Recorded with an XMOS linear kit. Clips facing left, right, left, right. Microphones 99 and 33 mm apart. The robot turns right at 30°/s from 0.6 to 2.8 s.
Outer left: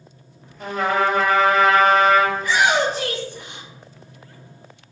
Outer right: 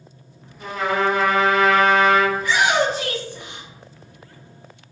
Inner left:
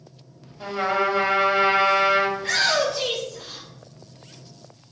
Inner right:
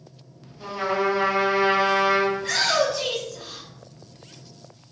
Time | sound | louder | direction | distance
0.6 | a trumpet | outer left 1 dB, inner left 1 dB | 75° left | 1.0 m
2.4 | a shout | even, inner left 1 dB | 45° left (ahead or behind) | 1.1 m